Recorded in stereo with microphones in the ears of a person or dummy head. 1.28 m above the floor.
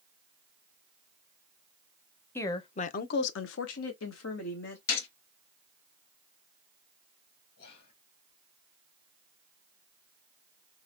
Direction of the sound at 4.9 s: 55° left (ahead or behind).